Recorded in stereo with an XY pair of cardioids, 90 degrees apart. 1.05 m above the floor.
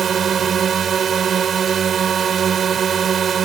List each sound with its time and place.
0.0 s a drone: 60° right